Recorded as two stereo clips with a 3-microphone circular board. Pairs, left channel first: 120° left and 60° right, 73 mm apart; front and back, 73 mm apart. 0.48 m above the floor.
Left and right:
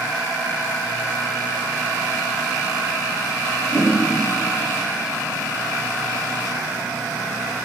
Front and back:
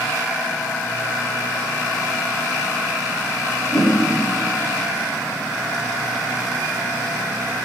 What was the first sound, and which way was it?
A whoosh, 30° left.